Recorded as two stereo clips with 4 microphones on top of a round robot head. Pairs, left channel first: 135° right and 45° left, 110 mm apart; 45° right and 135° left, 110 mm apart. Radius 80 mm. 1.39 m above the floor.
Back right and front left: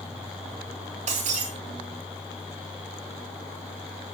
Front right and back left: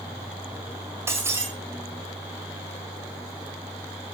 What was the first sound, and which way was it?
Breaking glass, 65° left.